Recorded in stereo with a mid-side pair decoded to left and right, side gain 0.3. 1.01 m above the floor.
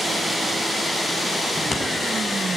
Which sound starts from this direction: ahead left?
Scissors, at 1.6 s.